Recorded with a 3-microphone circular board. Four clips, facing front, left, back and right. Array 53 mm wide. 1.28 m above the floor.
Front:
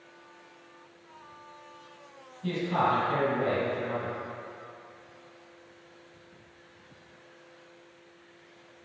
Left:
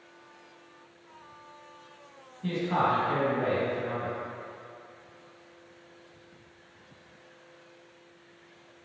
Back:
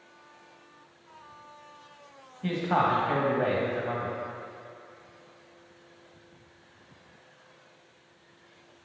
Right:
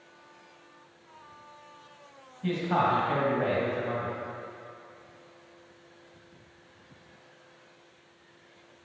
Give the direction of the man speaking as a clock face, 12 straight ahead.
6 o'clock.